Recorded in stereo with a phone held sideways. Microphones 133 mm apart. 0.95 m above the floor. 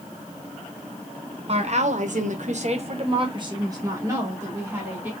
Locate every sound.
1.5 s a woman speaking: 50° right (ahead or behind), 1.0 m; by 5.1 s 15° right (ahead or behind), 2.5 m